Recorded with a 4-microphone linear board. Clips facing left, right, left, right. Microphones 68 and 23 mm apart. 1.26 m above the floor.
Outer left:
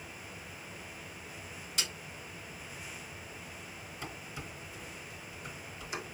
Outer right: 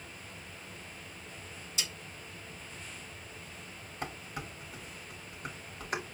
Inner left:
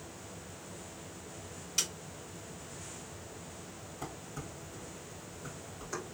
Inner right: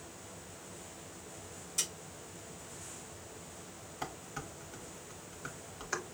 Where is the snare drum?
70° left (ahead or behind), 3 m.